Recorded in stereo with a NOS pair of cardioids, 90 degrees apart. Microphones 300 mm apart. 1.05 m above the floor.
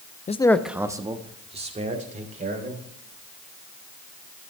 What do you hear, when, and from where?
0.3 s a man speaking: 25° left, 0.6 m; by 2.8 s 25° right, 3.5 m